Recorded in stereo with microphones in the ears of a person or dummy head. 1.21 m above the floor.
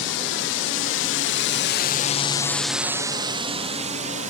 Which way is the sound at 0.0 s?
65° left (ahead or behind).